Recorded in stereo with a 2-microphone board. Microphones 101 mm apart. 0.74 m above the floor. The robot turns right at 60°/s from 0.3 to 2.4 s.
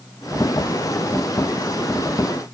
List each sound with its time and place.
Only background noise.